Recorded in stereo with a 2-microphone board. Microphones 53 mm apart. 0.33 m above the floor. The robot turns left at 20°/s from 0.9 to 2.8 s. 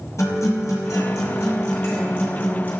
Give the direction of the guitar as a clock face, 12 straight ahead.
10 o'clock.